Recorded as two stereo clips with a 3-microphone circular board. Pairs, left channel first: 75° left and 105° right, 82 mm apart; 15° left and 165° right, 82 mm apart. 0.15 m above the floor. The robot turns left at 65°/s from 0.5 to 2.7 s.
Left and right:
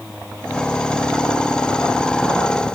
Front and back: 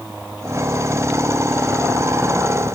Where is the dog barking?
I don't hear a dog barking.